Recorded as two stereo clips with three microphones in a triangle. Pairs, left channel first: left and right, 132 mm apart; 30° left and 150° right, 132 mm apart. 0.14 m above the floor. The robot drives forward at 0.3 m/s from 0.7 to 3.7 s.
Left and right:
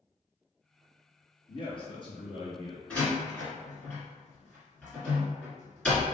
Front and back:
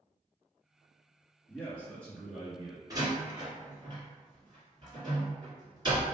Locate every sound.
1.5 s a man speaking: 100° left, 1.8 m; by 2.8 s 120° left, 1.9 m
2.9 s a door slam: 165° left, 1.5 m; by 6.0 s 170° left, 1.6 m